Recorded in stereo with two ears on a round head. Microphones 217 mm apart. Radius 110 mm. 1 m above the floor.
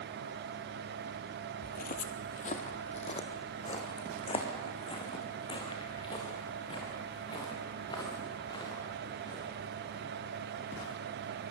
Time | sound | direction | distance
1.6 | footsteps | 40° left (ahead or behind) | 1.4 m